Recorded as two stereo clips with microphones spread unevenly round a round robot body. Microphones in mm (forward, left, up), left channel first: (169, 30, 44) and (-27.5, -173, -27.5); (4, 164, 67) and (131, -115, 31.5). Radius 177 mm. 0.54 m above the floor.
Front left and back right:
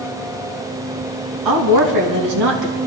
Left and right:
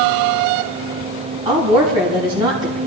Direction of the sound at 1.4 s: 140° right.